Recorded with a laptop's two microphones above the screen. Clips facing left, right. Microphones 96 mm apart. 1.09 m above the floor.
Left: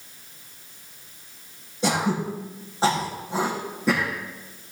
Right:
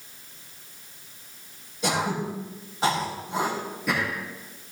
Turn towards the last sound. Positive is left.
turn(degrees=30)  # may be behind; listen again after turning